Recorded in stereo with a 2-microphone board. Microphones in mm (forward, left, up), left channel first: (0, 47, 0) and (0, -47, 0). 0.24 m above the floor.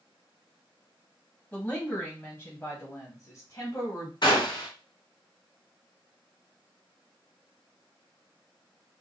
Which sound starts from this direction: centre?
A woman speaking, at 1.5 s.